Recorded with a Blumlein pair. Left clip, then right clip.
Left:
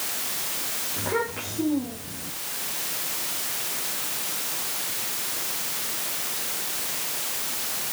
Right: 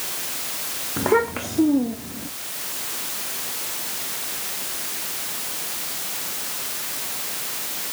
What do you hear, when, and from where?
1.0 s a child speaking: 60° right, 1.1 m